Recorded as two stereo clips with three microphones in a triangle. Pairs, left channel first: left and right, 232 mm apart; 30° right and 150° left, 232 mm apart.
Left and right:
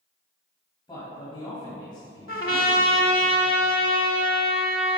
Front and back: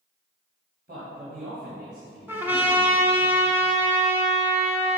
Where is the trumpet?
70° left, 0.9 m.